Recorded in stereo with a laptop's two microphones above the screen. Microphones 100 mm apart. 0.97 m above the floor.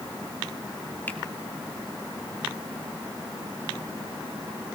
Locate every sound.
1.1 s a finger snap: 20° left (ahead or behind), 1.7 m